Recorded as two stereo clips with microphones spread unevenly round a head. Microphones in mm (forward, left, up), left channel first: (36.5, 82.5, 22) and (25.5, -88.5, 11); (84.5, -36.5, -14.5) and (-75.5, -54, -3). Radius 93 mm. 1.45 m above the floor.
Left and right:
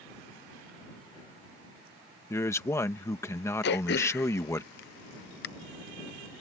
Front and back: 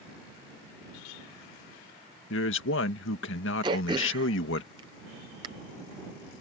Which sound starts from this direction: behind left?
Throat clearing, at 3.6 s.